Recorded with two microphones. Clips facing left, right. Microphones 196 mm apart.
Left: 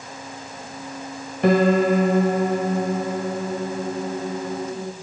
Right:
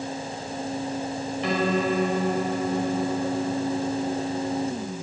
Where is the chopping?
I don't hear chopping.